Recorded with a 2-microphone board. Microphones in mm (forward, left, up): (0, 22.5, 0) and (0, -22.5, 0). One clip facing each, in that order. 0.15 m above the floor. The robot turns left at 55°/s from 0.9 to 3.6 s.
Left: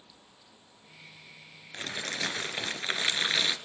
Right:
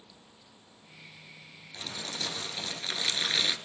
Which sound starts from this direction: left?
Crumpling, at 1.7 s.